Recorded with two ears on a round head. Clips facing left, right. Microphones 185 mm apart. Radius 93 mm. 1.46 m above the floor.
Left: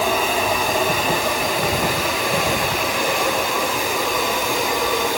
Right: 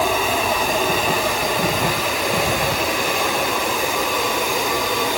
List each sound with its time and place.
Only background noise.